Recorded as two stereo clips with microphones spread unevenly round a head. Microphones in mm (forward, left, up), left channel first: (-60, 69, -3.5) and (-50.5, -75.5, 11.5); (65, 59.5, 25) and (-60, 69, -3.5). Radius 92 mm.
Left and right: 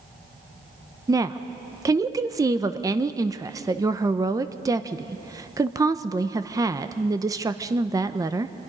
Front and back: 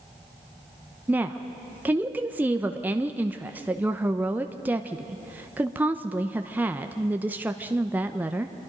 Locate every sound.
1.1 s a woman speaking: 145° right, 0.7 m